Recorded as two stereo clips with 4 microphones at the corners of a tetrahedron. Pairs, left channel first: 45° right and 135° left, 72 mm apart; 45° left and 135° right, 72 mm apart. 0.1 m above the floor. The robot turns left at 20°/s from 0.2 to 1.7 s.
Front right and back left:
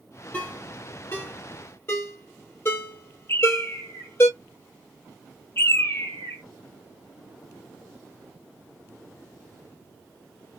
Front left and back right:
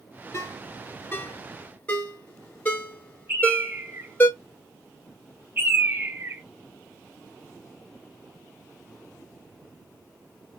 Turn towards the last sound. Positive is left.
turn(degrees=-85)